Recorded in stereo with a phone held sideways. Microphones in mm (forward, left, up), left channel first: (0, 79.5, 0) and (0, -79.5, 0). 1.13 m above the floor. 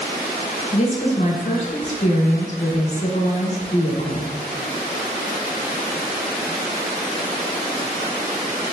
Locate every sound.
0.7 s a woman speaking: 45° left (ahead or behind), 1.1 m